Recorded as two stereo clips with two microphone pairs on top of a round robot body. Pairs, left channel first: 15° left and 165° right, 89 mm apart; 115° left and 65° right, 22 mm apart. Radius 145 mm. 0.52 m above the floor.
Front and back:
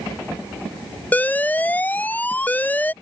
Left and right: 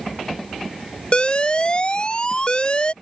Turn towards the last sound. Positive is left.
turn(degrees=85)